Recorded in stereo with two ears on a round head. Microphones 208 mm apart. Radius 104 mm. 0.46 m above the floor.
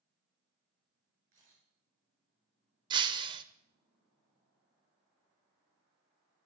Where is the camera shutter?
40° right (ahead or behind), 7.5 m.